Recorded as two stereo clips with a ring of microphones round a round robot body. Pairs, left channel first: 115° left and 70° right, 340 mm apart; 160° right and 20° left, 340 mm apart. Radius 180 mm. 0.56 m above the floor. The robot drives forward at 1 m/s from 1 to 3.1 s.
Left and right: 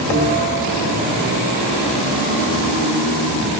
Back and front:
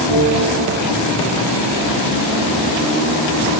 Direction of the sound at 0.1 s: 15° right.